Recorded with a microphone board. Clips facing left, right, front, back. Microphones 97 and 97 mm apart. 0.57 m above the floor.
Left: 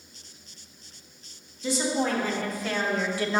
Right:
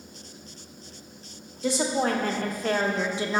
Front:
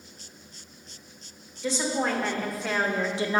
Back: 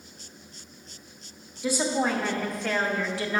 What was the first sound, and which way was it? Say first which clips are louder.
A woman speaking: right 1 dB, back 2 dB; 100° right.